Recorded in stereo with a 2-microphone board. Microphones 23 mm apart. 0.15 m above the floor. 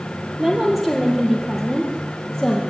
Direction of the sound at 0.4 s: 20° right (ahead or behind).